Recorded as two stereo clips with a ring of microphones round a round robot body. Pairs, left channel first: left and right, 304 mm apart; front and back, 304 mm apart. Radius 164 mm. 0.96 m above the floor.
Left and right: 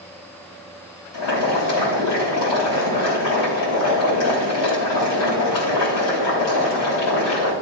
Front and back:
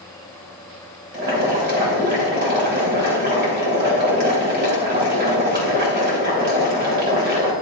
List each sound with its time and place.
1.1 s boiling: 120° left, 3 m